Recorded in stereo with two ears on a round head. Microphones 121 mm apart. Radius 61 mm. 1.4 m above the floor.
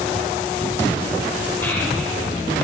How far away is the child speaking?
About 3 m.